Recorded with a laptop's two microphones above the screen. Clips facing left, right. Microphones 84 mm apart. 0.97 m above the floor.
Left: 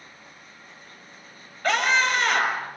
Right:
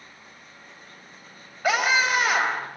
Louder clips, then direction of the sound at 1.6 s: Even; 10° right (ahead or behind).